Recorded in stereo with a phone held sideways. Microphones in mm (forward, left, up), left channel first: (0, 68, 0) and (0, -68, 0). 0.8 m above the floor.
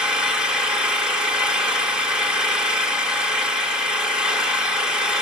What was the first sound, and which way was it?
An engine running, 5° right (ahead or behind).